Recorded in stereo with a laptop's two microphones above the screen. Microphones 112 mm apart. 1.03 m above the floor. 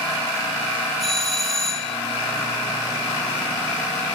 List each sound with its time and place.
1.0 s a doorbell: centre (ahead or behind), 7 m